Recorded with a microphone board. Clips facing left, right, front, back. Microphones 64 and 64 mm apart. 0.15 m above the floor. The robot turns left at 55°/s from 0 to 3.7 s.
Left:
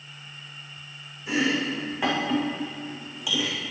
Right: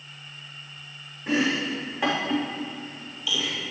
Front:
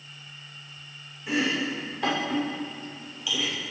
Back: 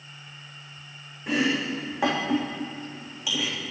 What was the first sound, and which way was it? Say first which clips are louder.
Chopping: even, back 2 dB; 140° right.